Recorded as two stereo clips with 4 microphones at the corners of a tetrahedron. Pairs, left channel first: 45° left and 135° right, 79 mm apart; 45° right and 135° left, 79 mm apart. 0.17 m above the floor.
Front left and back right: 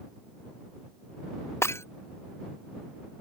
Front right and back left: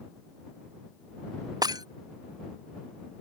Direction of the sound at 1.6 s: 100° left.